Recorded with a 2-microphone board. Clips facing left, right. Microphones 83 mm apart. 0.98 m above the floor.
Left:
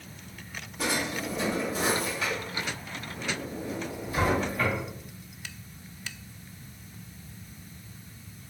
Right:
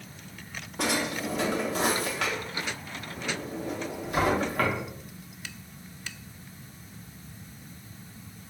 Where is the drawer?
70° right (ahead or behind), 0.8 m.